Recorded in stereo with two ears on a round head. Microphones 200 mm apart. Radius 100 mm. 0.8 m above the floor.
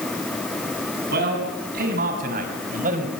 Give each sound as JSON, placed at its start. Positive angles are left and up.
{"t": 1.1, "sound": "a man speaking", "side_deg": -45, "distance_m": 7.0}